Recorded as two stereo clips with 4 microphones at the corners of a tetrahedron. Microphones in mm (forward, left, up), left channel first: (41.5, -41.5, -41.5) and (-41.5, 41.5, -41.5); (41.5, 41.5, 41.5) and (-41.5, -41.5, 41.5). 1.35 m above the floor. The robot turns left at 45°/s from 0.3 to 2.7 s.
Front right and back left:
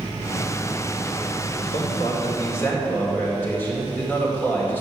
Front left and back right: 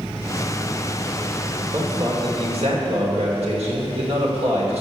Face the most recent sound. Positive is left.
turn(degrees=-115)